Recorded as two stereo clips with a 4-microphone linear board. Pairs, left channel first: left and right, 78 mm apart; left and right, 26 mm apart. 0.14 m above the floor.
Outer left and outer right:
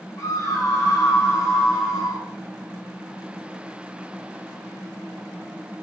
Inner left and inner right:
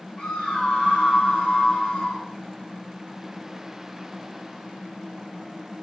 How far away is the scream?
About 7 m.